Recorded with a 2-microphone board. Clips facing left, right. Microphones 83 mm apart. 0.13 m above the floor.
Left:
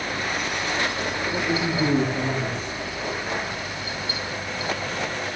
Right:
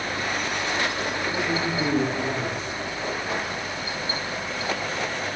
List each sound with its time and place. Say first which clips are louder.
1.3 s a man speaking: left 2 dB; 15° right (ahead or behind), 8 m